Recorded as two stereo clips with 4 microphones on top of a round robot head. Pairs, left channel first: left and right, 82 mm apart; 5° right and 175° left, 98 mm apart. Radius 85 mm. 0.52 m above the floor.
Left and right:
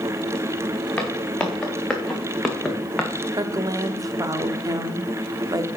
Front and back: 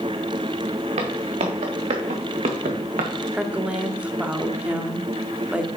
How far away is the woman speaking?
About 1.0 m.